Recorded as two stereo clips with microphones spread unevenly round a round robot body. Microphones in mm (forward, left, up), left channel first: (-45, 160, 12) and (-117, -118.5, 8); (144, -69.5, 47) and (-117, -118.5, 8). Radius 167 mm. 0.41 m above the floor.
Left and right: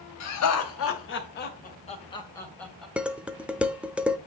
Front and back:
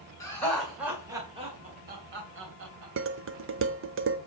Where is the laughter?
95° left, 2 m; by 2.9 s 165° left, 2.5 m.